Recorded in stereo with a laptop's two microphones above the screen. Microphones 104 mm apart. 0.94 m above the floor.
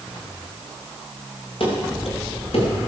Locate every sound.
1.6 s running footsteps: 60° left (ahead or behind), 8 m